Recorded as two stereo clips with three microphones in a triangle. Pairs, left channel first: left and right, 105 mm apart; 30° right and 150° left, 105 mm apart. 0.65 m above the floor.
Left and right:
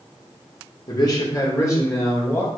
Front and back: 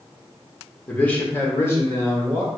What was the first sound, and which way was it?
A man speaking, 45° left.